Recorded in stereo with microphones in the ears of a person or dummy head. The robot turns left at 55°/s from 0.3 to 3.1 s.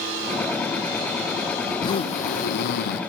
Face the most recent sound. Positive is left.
turn(degrees=85)